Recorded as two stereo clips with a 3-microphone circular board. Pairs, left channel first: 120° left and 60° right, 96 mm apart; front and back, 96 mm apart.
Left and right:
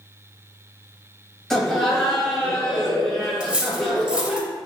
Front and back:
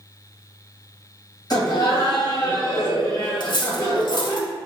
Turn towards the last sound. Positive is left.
turn(degrees=20)